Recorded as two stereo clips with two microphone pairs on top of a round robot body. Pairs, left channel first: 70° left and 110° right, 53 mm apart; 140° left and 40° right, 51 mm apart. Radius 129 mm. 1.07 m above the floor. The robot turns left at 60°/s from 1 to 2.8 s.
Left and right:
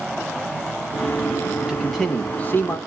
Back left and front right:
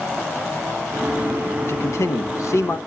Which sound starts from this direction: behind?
A man speaking, at 1.6 s.